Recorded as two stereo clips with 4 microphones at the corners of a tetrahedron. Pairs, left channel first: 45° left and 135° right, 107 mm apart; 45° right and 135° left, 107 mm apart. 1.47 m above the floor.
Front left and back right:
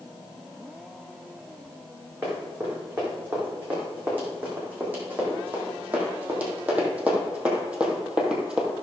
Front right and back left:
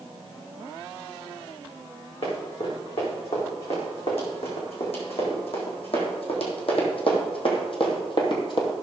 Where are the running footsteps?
65° right, 5.5 m; by 8.7 s 55° right, 2 m.